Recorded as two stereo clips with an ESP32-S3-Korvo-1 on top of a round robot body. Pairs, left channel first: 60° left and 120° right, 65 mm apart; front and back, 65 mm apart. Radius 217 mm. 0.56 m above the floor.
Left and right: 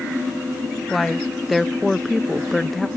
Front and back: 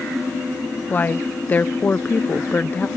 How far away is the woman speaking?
About 0.7 m.